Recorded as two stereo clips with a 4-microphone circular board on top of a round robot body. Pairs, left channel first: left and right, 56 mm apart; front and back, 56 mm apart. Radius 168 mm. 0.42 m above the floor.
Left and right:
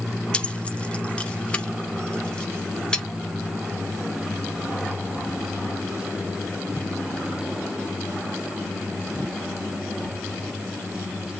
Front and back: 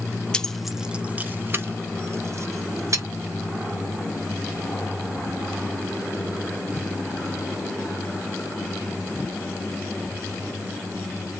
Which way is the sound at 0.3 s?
50° left.